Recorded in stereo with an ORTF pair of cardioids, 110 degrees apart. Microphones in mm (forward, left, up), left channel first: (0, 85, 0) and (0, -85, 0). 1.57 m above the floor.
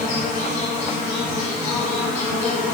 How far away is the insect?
About 0.8 m.